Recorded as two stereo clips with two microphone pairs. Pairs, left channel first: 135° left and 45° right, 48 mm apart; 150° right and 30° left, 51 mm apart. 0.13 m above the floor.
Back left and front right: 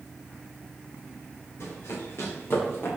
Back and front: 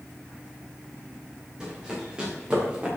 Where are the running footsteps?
110° left, 4.5 m; by 2.9 s 100° left, 5 m.